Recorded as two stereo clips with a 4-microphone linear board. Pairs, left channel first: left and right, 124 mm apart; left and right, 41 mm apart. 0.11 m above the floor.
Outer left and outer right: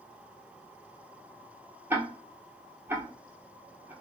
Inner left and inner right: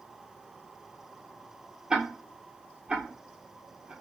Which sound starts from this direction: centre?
Ticking, at 1.9 s.